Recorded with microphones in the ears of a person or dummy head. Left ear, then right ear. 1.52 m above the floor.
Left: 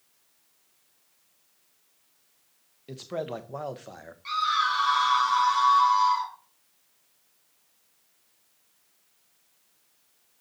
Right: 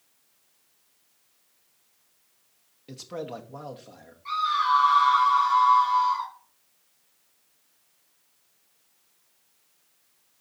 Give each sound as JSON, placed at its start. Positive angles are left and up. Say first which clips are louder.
{"t": 2.9, "sound": "a man speaking", "louder": "left 3 dB", "side_deg": 0, "distance_m": 0.7}
{"t": 4.2, "sound": "a scream", "louder": "right 1 dB", "side_deg": 50, "distance_m": 4.0}